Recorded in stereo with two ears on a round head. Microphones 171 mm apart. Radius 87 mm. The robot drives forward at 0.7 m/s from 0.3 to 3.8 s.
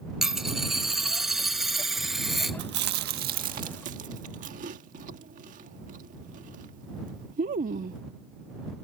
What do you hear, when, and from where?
0.2 s a dropped coin: centre (ahead or behind)
2.6 s chewing: 65° right (ahead or behind); by 8.0 s 45° right (ahead or behind)